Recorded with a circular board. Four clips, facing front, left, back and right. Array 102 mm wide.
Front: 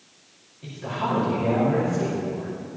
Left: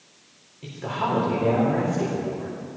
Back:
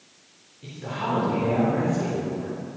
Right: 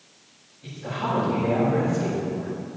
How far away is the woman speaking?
About 5 m.